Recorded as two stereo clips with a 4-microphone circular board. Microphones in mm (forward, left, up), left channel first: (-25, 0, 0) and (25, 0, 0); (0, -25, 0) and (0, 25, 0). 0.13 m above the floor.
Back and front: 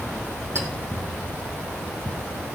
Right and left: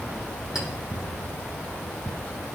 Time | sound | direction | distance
0.6 | a clink | 10° left | 3 m